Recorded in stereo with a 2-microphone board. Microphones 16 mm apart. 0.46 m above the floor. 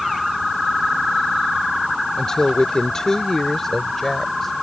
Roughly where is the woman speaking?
Left.